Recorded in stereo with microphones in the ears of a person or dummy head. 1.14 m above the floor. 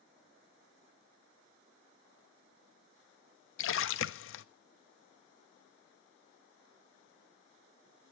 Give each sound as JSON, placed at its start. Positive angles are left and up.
{"t": 3.6, "sound": "a splash", "side_deg": 65, "distance_m": 0.7}